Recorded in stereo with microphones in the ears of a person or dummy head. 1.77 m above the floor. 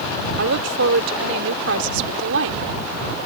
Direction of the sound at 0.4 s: 75° right (ahead or behind).